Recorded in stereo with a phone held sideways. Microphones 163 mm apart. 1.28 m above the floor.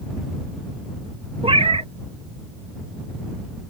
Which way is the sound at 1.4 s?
35° right (ahead or behind).